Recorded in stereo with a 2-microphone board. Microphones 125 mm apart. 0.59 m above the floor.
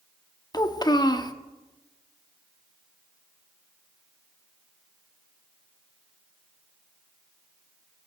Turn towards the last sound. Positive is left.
turn(degrees=35)  # may be behind; listen again after turning